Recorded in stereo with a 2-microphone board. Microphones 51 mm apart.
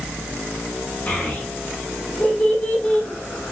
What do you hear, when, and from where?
1.1 s a child speaking: 30° left (ahead or behind), 5.5 m; by 3.5 s 20° left (ahead or behind), 4.5 m